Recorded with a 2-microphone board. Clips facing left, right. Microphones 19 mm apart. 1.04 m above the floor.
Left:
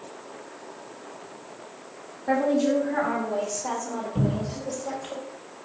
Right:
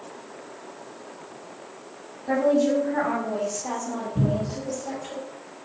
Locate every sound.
2.3 s a woman speaking: 40° left (ahead or behind), 2.5 m; by 5.2 s 25° left (ahead or behind), 3.5 m
4.2 s a cupboard door: 65° left (ahead or behind), 5.5 m